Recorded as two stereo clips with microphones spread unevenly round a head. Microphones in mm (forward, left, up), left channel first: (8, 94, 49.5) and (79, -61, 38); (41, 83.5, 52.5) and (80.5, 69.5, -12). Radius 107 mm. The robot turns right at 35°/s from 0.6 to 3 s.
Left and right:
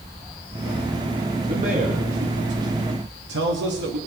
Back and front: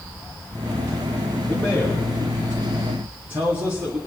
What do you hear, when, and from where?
1.4 s a man speaking: 125° right, 1.8 m; by 4.0 s 70° right, 1.8 m